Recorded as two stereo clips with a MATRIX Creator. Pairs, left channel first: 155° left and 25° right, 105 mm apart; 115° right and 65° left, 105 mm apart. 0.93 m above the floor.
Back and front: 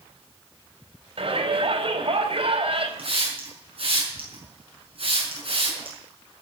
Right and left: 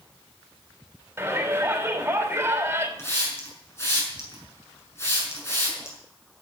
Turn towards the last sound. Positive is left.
turn(degrees=-50)